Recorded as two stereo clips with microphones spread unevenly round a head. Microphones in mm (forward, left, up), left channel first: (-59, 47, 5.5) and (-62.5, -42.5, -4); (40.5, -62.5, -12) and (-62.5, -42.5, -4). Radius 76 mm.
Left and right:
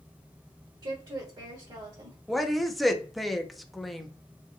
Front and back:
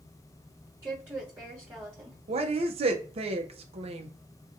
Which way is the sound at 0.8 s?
120° right.